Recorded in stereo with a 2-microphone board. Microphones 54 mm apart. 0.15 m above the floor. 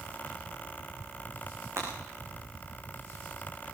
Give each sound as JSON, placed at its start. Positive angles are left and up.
{"t": 1.8, "sound": "breaking glass", "side_deg": -60, "distance_m": 5.5}